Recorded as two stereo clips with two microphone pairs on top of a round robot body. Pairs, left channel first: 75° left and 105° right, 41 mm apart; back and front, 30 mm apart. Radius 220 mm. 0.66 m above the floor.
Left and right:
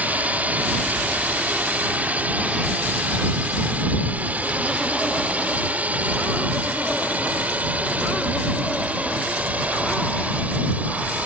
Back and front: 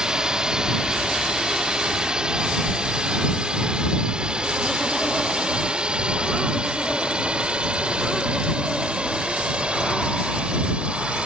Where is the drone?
65° right; by 11.3 s 55° right.